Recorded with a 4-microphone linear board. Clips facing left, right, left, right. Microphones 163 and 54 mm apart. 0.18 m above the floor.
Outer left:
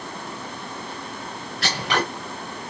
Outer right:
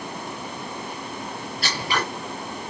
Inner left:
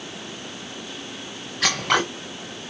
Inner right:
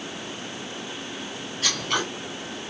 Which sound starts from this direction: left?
Scissors, at 1.6 s.